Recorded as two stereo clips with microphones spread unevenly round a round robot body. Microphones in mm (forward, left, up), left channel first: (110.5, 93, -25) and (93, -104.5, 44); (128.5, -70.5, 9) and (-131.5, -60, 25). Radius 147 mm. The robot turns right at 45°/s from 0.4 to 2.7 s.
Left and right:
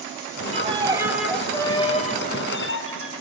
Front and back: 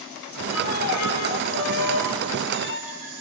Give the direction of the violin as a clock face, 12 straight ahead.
1 o'clock.